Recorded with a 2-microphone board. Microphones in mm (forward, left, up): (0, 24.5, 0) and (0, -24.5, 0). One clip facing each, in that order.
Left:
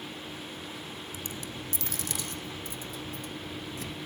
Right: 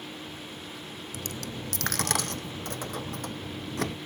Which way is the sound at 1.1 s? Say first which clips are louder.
Right 5 dB; 75° right (ahead or behind).